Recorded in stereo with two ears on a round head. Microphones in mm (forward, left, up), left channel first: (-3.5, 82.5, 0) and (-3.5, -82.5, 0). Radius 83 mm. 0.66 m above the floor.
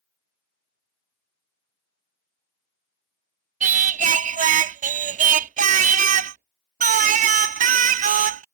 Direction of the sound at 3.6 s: 45° right (ahead or behind).